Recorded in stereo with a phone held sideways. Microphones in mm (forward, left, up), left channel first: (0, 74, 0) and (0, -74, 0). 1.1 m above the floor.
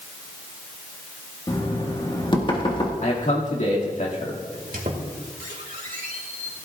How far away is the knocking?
About 1.7 m.